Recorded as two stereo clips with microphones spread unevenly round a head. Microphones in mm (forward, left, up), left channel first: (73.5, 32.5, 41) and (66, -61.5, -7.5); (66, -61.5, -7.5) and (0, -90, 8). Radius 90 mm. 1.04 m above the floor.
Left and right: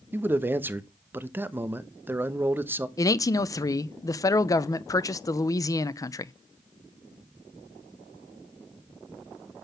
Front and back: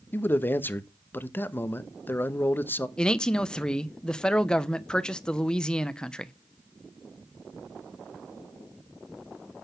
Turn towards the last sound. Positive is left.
turn(degrees=10)